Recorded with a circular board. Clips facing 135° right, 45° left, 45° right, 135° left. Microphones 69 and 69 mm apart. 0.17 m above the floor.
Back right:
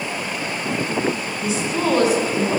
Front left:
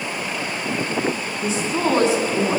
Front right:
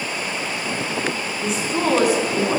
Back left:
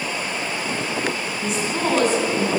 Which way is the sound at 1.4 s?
45° left.